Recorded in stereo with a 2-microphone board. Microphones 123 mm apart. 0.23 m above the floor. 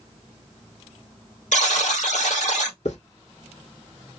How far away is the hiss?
About 2 m.